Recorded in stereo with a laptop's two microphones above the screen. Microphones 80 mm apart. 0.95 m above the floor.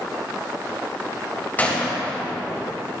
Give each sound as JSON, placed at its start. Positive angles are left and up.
{"t": 1.6, "sound": "a gunshot", "side_deg": 20, "distance_m": 3.0}